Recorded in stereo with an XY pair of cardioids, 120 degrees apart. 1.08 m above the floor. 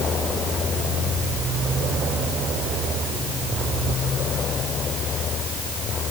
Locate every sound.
Only background noise.